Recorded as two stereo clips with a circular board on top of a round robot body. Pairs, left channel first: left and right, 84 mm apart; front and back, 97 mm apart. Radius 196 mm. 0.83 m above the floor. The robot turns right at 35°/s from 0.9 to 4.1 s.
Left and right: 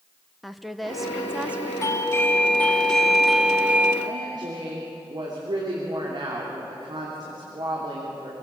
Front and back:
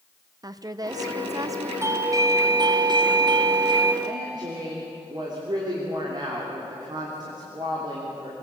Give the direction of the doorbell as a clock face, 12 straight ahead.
8 o'clock.